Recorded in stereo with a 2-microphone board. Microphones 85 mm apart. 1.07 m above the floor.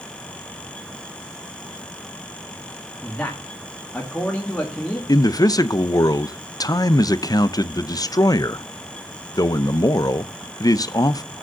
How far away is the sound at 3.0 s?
About 1.7 m.